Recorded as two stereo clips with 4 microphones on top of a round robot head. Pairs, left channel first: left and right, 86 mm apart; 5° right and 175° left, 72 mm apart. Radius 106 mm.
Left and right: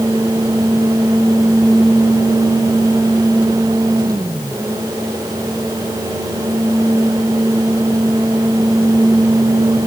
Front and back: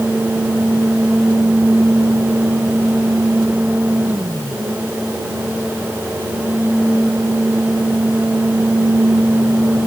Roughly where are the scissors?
I don't hear scissors.